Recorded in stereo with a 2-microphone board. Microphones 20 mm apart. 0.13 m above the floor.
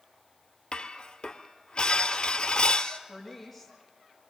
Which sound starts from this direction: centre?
A woman speaking, at 3.1 s.